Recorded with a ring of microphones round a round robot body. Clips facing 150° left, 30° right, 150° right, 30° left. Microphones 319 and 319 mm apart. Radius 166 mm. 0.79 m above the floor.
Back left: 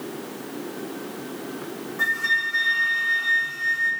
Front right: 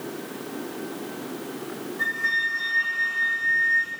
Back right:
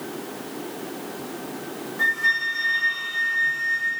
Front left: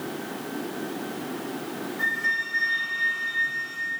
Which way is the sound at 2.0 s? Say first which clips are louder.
Back left 1 dB, even; 130° left.